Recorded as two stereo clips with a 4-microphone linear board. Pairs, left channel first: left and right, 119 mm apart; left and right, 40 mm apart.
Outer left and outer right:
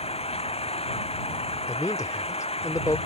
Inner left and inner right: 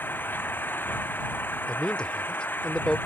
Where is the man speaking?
25° left (ahead or behind).